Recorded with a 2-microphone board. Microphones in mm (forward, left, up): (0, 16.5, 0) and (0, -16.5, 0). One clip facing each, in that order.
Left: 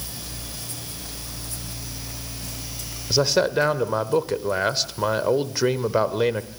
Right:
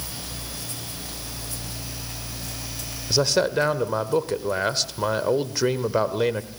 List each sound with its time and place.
3.1 s a man speaking: 5° left (ahead or behind), 1.1 m